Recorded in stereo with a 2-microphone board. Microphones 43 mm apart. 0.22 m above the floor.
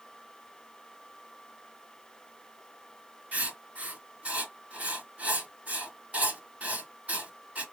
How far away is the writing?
About 2 m.